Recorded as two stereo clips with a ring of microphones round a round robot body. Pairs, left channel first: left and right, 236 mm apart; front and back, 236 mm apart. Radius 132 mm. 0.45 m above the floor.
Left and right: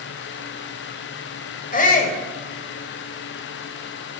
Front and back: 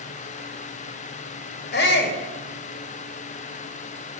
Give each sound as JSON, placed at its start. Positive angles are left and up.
{"t": 1.7, "sound": "a shout", "azimuth_deg": 40, "distance_m": 2.0}